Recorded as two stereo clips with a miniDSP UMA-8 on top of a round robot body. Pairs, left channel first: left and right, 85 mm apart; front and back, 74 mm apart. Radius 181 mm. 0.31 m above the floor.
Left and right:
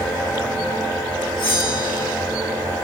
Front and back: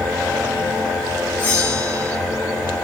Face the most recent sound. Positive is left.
turn(degrees=60)